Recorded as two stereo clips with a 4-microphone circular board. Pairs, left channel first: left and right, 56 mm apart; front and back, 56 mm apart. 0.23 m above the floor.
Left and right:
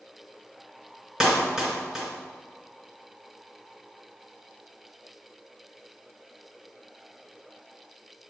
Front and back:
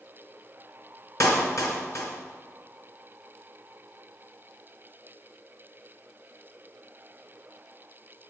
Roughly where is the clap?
Ahead.